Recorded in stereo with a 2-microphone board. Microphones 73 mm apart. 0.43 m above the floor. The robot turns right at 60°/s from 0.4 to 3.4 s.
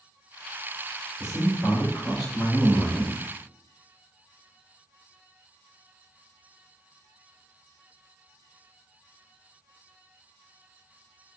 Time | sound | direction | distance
1.2 | a man speaking | 110° left | 1.8 m